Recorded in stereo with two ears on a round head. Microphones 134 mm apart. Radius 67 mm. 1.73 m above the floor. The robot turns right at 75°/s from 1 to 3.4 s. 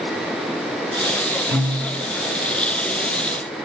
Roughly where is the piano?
Right.